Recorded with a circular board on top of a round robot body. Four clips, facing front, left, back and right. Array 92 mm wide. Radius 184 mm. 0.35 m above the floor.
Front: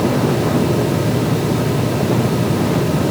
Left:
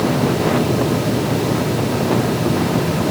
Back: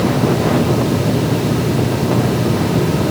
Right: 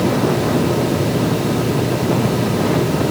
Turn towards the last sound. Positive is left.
No sound to turn to.